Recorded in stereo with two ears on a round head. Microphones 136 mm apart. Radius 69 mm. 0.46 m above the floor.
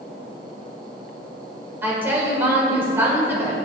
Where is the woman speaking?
15° right (ahead or behind), 1.6 m.